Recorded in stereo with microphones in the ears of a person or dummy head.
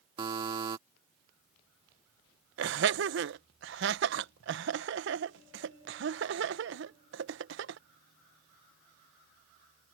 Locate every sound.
0.2 s a buzzer: 25° right (ahead or behind)
2.6 s laughter: 65° right (ahead or behind)